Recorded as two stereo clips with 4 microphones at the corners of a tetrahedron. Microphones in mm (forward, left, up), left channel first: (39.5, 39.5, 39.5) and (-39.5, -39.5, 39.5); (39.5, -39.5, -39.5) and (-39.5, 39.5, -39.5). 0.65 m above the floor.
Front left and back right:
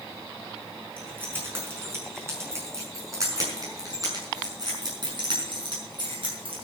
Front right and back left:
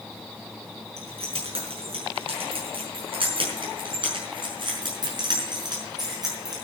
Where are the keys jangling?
155° left, 6 m; by 6.6 s 170° right, 6 m.